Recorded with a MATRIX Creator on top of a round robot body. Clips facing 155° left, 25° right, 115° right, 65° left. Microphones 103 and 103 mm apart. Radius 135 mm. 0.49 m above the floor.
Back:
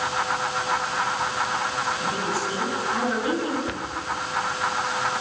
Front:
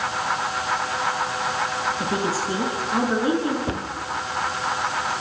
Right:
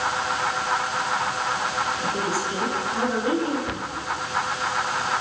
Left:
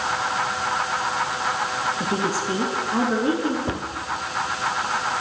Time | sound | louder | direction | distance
2.0 | a woman speaking | front 2 dB, left 1 dB | 35° left | 7 m
3.7 | a cupboard door | front 3 dB, left 2 dB | 20° left | 1.8 m